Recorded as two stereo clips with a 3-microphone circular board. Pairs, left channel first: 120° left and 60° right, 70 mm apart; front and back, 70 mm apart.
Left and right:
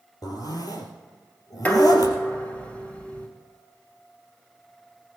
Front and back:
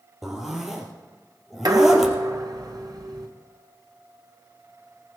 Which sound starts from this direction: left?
A zipper, at 0.2 s.